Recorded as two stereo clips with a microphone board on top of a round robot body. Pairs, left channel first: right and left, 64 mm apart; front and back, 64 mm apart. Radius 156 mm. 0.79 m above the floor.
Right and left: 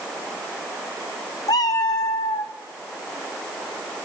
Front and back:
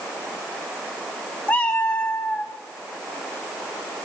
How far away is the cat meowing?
About 0.5 m.